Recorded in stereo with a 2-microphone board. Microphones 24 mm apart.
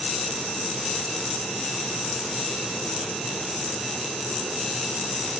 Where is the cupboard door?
I don't hear a cupboard door.